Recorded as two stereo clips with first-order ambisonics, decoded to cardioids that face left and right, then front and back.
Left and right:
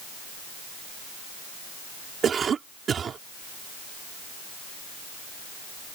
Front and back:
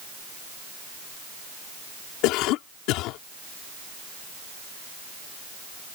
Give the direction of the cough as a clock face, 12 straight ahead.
1 o'clock.